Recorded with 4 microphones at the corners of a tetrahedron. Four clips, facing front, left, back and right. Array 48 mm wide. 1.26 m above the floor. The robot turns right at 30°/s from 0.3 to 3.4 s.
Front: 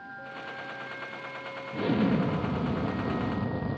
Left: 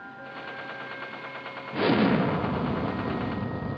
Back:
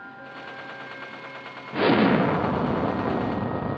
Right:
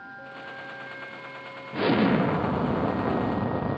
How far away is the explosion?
About 0.7 m.